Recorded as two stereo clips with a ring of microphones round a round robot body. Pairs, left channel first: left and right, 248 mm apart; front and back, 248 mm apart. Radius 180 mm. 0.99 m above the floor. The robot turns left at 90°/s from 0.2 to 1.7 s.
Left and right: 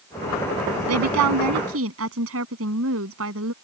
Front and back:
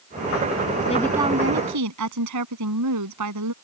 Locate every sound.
0.9 s a woman speaking: 70° right; by 3.5 s 145° right